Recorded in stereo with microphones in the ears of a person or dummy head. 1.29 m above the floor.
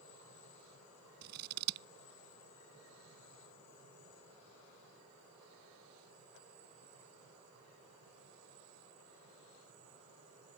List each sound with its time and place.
1.2 s scissors: 60° right (ahead or behind)